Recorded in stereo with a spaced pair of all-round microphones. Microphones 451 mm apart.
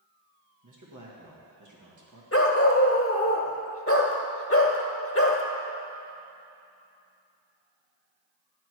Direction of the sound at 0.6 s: 45° right (ahead or behind).